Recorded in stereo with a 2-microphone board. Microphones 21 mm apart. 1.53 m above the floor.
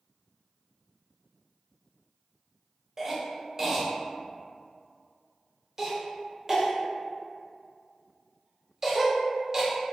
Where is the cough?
25° right (ahead or behind), 0.8 m.